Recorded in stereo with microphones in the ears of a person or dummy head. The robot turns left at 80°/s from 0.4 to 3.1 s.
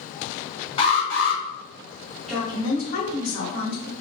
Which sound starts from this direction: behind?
A woman speaking, at 2.3 s.